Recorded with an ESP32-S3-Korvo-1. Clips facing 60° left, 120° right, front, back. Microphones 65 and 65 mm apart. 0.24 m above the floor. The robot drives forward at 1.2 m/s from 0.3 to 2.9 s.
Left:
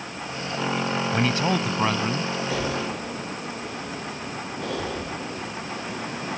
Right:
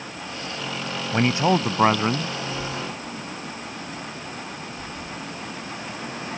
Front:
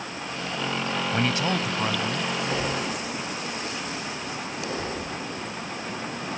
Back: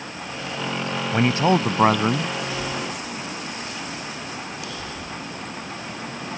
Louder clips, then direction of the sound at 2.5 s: Left 3 dB, front 1 dB; 50° left.